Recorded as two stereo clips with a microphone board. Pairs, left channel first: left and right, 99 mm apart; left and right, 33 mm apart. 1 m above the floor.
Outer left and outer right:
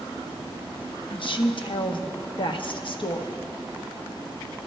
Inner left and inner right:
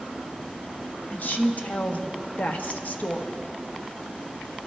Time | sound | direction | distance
1.1 | a woman speaking | 55° left (ahead or behind) | 0.8 m